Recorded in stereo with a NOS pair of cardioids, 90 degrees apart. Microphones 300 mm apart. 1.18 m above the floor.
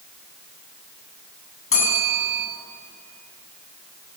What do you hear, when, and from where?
1.7 s a bell: 45° left, 9 m